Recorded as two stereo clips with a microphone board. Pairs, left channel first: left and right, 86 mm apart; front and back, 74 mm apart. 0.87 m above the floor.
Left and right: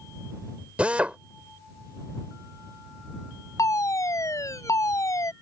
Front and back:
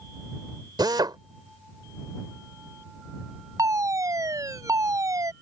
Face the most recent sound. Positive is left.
turn(degrees=140)